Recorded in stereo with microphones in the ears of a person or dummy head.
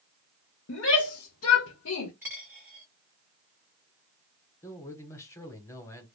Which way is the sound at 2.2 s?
10° right (ahead or behind).